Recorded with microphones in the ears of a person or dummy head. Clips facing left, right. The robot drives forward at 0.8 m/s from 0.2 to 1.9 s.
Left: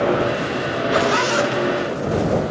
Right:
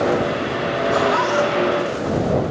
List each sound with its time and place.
0.9 s a zipper: 40° left (ahead or behind), 0.8 m; by 2.4 s 20° left (ahead or behind), 1.4 m